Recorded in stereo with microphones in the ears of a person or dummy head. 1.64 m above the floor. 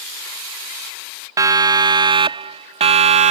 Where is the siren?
20° right (ahead or behind); by 3.3 s 35° right (ahead or behind).